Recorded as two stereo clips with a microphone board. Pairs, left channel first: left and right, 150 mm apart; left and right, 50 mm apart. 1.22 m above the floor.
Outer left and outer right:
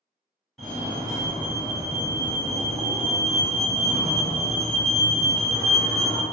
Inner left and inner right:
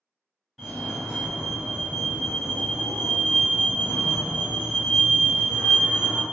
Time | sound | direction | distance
0.6 | a fire alarm | centre (ahead or behind) | 1.4 m